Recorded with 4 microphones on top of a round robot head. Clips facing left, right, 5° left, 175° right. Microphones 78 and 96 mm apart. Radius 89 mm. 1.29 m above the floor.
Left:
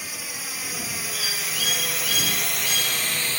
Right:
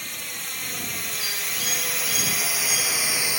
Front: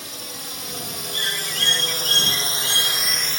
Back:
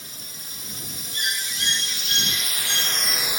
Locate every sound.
0.0 s a drone: 5° left; by 3.4 s 145° right
1.1 s a bird: 110° left